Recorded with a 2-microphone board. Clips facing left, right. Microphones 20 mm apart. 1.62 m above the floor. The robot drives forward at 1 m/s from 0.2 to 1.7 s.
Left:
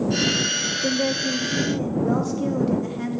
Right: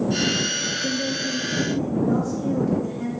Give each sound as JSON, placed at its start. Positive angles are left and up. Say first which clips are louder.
{"t": 0.8, "sound": "a woman speaking", "louder": "left 2 dB", "side_deg": 80, "distance_m": 0.5}